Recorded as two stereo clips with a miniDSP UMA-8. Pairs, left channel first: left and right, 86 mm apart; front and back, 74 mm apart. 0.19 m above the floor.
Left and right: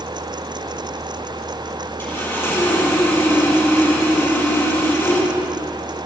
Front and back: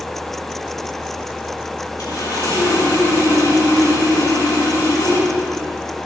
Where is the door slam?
No door slam in this recording.